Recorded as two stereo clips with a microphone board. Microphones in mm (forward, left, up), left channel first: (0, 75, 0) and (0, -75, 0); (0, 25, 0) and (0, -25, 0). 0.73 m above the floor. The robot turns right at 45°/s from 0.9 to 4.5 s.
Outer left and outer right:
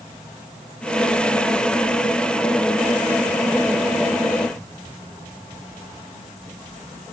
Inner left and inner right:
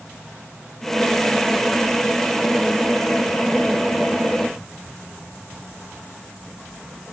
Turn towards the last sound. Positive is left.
No sound to turn to.